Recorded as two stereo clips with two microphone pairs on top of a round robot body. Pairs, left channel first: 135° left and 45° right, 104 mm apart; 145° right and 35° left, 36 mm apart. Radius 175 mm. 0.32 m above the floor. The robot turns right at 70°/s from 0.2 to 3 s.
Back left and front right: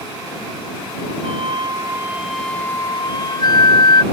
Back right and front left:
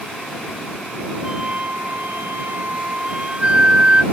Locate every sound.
1.2 s a flute: 35° right; by 4.0 s 90° left